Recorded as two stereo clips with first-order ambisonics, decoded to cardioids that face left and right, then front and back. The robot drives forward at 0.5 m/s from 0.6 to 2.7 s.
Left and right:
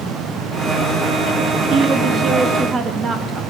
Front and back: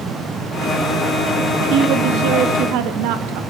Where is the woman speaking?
145° right, 1.1 m; by 3.4 s 155° right, 1.6 m.